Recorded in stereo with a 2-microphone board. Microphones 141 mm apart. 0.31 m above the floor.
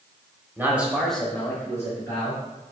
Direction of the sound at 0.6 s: 15° right (ahead or behind).